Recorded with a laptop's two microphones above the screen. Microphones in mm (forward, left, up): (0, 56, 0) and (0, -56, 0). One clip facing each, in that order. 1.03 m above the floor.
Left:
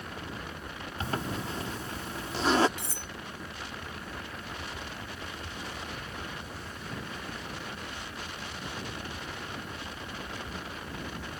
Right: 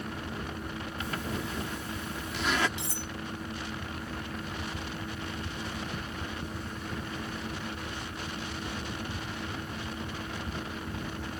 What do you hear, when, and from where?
0.0 s a fan: 60° right (ahead or behind)
1.0 s a zipper: 35° left (ahead or behind)
2.8 s cutlery clinking: 50° left (ahead or behind)